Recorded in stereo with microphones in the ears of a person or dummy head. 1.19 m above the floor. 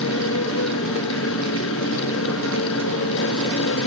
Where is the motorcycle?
70° left (ahead or behind).